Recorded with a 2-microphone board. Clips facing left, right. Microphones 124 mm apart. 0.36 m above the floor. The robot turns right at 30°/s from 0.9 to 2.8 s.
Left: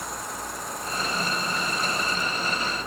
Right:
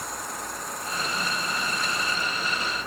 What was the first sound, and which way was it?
Only background noise.